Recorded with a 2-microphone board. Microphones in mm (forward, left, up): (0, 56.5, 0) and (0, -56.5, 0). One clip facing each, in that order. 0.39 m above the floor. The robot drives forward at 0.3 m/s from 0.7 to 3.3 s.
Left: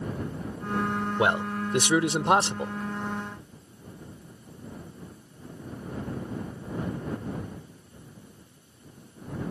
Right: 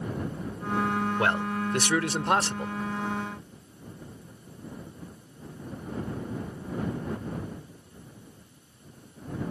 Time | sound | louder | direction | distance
1.2 | a man speaking | left 1 dB | 20° left (ahead or behind) | ?